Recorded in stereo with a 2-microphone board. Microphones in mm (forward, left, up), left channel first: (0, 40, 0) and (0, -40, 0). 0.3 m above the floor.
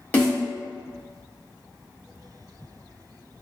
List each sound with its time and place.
0.1 s a snare drum: 20° left (ahead or behind), 1.2 m